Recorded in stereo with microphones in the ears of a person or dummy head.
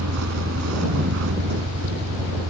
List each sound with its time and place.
0.0 s a vehicle: 80° right; by 2.5 s 70° right (ahead or behind)